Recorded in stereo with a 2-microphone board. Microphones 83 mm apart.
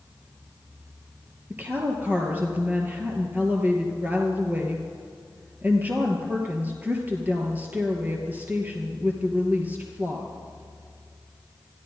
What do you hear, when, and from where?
1.5 s a woman speaking: 20° right (ahead or behind), 2.5 m